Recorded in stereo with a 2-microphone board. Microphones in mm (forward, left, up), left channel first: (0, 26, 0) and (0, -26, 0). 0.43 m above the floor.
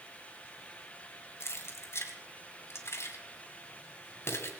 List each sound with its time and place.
1.4 s keys jangling: 55° left (ahead or behind), 2.5 m